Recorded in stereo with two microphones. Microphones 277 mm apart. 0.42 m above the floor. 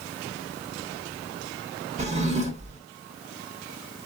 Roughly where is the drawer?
Right.